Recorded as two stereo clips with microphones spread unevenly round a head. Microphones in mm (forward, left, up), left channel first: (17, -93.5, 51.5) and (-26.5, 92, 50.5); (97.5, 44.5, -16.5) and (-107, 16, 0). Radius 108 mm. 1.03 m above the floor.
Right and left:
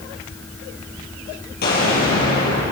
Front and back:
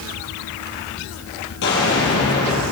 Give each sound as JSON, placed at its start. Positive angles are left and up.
{"t": 1.6, "sound": "an explosion", "azimuth_deg": -35, "distance_m": 7.0}